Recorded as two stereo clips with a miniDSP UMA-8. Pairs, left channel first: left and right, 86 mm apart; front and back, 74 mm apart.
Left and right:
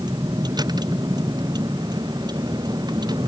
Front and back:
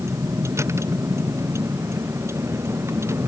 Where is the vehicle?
130° right; by 3.3 s 125° right.